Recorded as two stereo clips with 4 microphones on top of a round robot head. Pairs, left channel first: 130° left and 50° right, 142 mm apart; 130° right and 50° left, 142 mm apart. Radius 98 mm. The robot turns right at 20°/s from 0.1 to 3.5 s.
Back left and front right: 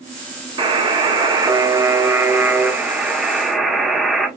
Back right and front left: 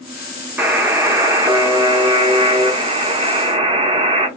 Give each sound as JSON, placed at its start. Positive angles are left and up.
{"t": 0.6, "sound": "a buzzer", "azimuth_deg": -20, "distance_m": 1.0}